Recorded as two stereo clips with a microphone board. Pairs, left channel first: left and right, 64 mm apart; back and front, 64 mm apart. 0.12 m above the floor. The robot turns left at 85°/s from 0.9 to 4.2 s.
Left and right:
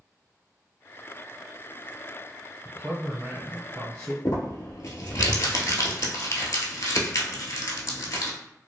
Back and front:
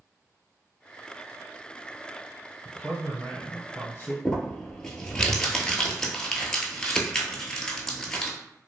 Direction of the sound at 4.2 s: 105° left.